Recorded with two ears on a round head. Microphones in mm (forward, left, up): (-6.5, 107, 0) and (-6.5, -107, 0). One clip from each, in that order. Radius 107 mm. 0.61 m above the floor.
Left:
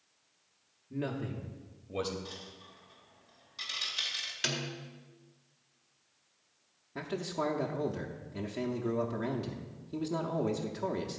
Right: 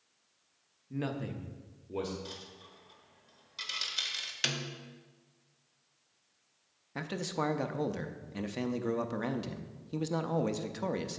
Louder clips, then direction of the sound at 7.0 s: Even; 25° right (ahead or behind).